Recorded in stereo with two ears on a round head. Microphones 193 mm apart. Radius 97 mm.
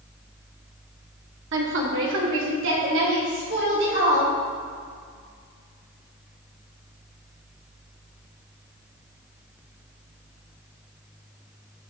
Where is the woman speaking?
60° right (ahead or behind), 1.9 m; by 4.3 s 50° right (ahead or behind), 5.5 m.